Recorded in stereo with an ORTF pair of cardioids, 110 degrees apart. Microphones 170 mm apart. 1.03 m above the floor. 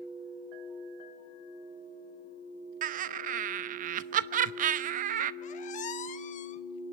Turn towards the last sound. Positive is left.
turn(degrees=50)